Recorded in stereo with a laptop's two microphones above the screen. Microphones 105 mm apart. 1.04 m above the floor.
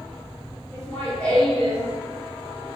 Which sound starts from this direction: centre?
Laughter, at 0.7 s.